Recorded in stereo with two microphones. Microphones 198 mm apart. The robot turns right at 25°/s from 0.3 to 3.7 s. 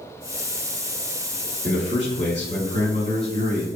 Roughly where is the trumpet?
I don't hear a trumpet.